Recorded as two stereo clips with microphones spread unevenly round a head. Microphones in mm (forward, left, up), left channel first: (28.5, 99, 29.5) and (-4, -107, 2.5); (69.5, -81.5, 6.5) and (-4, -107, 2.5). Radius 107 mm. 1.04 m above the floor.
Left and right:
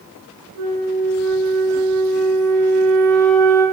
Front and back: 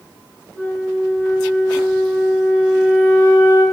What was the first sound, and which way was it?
A flute, 95° right.